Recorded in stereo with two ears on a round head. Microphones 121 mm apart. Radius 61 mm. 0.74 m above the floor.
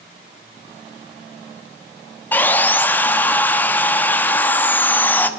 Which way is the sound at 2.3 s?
15° left (ahead or behind).